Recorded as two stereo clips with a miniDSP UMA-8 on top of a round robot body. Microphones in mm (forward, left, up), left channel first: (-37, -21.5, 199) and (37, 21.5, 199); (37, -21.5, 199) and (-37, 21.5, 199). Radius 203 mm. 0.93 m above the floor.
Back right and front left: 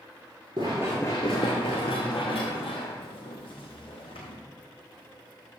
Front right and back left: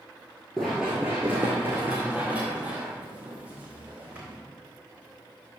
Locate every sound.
0.6 s running footsteps: 55° left, 0.9 m; by 4.4 s 135° right, 3 m